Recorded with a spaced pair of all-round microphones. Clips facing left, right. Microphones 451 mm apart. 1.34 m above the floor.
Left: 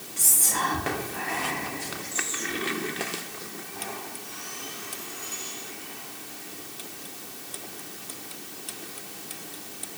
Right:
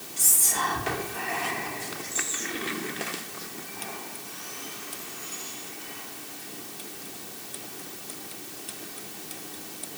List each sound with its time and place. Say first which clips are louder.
0.2 s whispering: left 2 dB; 70° left (ahead or behind), 1.1 m